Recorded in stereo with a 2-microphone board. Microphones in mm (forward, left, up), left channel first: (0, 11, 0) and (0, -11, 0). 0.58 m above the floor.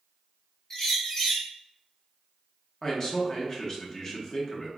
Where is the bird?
20° left (ahead or behind), 0.9 m.